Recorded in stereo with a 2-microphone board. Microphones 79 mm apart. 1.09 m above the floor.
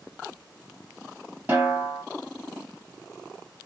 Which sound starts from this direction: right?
A snare drum, at 1.5 s.